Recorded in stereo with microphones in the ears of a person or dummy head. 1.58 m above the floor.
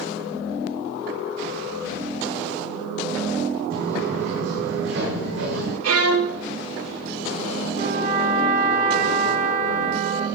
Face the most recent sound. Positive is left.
turn(degrees=-45)  # may be behind; listen again after turning